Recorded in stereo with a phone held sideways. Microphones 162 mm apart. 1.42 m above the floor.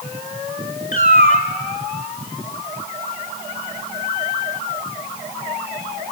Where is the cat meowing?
55° left (ahead or behind), 1.9 m.